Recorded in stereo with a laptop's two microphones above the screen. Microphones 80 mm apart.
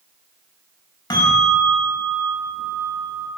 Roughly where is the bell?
Left.